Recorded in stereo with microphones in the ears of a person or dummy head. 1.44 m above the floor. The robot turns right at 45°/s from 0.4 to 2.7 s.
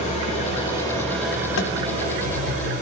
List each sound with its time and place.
0.0 s an engine running: 145° left, 5 m; by 2.8 s 115° right, 5 m
1.6 s tapping: 65° left (ahead or behind), 1.5 m; by 1.8 s 55° left (ahead or behind), 1.5 m